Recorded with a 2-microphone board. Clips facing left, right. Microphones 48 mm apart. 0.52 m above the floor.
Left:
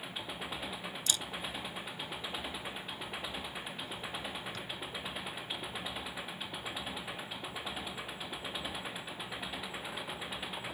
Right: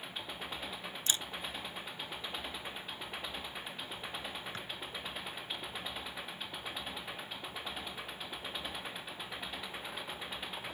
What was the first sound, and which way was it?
An engine running, 5° left (ahead or behind).